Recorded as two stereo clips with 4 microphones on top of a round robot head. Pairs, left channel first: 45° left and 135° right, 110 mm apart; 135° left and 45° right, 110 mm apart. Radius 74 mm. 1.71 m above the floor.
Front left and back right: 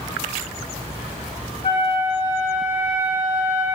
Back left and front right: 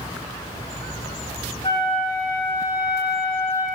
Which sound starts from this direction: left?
A flute, at 1.6 s.